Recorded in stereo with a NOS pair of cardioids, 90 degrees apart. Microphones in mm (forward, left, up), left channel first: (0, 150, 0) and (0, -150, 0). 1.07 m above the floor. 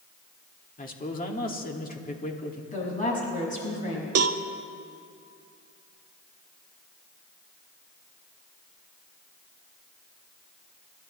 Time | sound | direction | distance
0.8 | a man speaking | 30° left | 2.5 m
2.7 | a woman speaking | 25° left | 6.5 m
4.2 | a cowbell | 55° right | 1.1 m